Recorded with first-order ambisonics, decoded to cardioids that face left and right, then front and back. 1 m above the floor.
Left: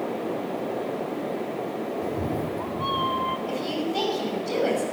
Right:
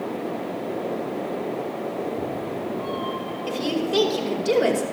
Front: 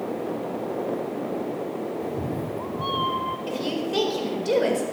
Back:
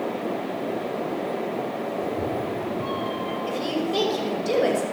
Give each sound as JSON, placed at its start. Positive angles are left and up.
{"t": 2.0, "sound": "a cat meowing", "azimuth_deg": 65, "distance_m": 1.1}
{"t": 3.5, "sound": "a woman speaking", "azimuth_deg": -65, "distance_m": 4.5}